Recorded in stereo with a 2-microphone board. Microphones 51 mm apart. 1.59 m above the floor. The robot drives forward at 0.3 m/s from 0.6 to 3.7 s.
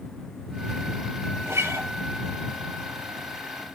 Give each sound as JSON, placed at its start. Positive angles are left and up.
{"t": 1.4, "sound": "a guitar", "side_deg": -75, "distance_m": 5.5}